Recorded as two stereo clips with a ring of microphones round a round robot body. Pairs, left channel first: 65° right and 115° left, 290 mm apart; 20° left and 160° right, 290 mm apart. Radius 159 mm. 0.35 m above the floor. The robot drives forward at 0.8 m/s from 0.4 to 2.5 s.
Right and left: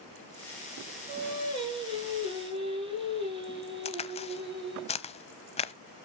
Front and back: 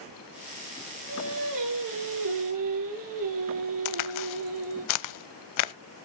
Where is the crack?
5° left, 0.8 m.